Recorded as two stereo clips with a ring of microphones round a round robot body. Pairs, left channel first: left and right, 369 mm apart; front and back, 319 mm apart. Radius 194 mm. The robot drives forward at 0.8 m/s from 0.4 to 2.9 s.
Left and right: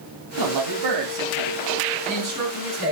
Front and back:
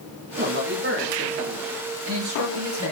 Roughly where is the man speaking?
Behind right.